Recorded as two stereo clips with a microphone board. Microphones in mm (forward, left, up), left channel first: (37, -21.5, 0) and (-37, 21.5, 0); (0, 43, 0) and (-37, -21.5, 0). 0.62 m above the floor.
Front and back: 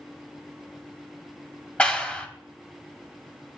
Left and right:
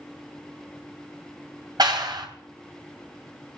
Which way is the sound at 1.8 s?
105° right.